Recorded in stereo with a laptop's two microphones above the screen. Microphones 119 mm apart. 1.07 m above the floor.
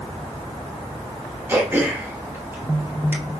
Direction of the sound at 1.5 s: 15° right (ahead or behind).